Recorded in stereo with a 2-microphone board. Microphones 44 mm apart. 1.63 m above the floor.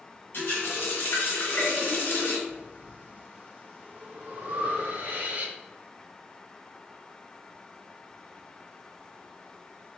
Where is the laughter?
No laughter in this recording.